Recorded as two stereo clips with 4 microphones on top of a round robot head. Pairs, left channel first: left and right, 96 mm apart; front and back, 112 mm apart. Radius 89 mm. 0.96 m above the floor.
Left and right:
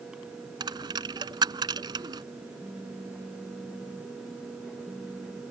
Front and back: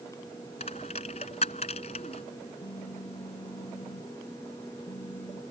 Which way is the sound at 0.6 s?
50° right.